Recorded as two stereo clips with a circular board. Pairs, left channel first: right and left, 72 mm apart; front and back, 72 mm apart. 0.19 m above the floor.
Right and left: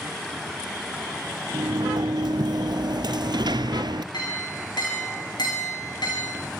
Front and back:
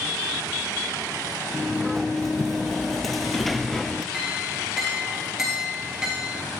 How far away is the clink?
About 9 m.